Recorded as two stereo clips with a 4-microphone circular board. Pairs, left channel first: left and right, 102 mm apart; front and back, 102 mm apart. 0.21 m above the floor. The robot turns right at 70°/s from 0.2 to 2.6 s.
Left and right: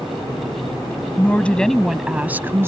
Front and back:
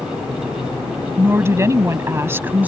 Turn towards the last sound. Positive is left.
turn(degrees=-125)